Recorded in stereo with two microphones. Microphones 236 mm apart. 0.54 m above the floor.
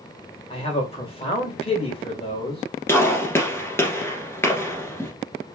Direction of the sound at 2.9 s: 10° left (ahead or behind).